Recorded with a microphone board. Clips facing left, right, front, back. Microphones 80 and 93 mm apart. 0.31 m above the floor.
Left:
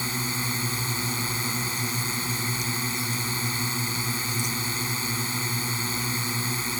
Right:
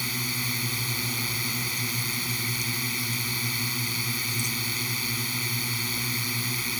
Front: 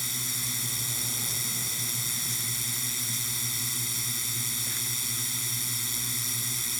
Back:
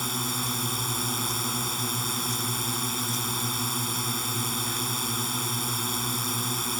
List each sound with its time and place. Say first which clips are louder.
0.0 s a drone: left 3 dB, back 10 dB; 150° left